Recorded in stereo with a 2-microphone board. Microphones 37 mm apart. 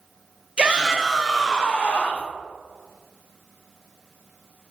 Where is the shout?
30° right (ahead or behind), 0.7 m; by 2.3 s 45° left (ahead or behind), 0.8 m.